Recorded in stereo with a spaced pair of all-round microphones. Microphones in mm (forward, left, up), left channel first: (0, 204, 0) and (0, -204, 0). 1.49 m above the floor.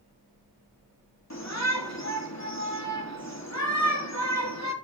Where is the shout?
40° left (ahead or behind), 3.5 m.